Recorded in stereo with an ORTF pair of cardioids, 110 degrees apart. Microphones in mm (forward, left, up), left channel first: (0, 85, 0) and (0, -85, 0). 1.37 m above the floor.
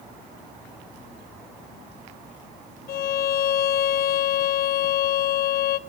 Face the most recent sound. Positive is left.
turn(degrees=60)